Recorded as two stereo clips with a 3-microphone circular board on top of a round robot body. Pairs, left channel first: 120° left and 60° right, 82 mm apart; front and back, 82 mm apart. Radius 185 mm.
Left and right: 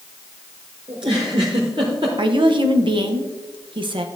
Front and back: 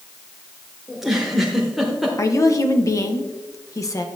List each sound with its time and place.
0.9 s a giggle: 95° right, 0.7 m
2.2 s a woman speaking: 50° right, 1.2 m